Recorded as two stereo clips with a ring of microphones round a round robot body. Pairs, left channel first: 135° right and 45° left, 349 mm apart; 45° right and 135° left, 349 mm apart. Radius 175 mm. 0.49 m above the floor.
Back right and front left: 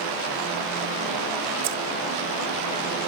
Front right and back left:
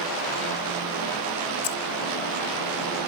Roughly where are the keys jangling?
Ahead.